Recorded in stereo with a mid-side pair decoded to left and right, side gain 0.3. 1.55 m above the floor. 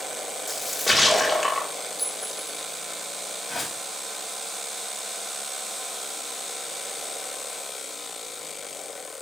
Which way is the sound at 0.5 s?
10° left.